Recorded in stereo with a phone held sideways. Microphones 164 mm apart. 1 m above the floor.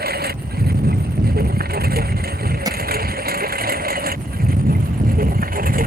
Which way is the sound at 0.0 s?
80° right.